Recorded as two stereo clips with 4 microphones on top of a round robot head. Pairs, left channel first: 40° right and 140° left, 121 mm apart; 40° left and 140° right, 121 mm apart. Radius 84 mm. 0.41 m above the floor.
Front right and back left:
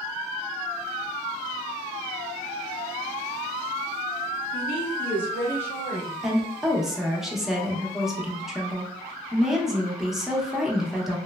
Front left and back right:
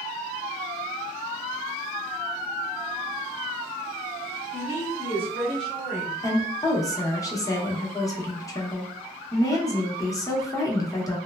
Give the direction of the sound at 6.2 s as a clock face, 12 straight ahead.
10 o'clock.